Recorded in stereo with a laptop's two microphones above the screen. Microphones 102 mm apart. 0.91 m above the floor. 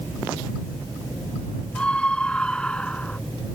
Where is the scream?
10° left (ahead or behind).